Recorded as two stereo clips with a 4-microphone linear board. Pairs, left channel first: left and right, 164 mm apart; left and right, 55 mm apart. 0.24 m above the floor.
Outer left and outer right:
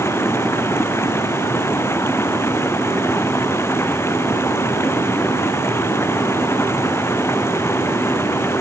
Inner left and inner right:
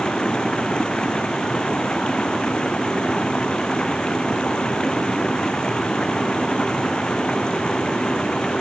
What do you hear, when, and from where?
0.0 s running water: 15° left (ahead or behind)